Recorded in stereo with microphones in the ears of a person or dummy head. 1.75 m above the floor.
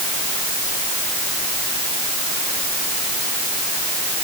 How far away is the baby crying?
I don't hear a baby crying.